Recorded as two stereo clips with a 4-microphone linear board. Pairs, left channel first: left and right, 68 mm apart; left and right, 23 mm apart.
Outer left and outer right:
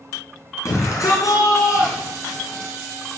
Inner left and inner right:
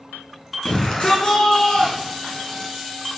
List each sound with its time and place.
0.7 s a shout: 50° left (ahead or behind), 3.5 m; by 2.7 s 60° left (ahead or behind), 5 m